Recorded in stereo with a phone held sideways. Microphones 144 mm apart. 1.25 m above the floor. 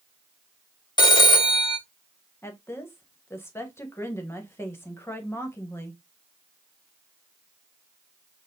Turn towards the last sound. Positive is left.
turn(degrees=15)  # may be behind; listen again after turning